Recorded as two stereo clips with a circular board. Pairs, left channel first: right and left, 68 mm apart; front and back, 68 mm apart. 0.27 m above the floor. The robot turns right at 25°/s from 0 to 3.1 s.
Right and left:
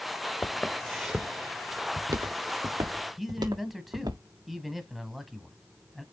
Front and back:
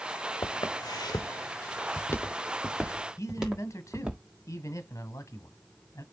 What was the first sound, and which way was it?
Footsteps, 20° right.